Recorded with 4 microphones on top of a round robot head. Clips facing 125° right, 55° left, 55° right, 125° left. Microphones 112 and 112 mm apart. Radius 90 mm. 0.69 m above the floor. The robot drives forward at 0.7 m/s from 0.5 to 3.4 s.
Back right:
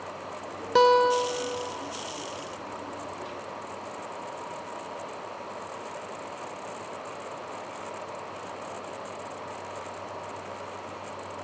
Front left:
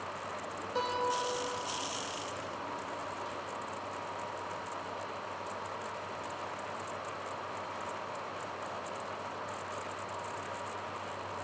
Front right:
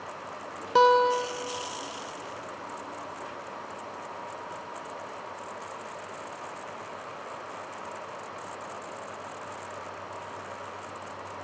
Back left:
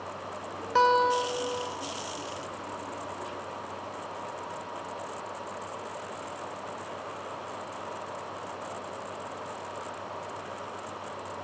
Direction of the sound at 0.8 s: 125° right.